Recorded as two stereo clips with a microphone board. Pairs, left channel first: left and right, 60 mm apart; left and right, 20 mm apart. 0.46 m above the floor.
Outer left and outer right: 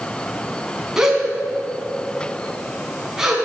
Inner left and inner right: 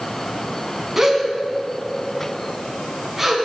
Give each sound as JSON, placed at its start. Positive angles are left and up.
{"t": 1.0, "sound": "a gasp", "side_deg": -10, "distance_m": 1.5}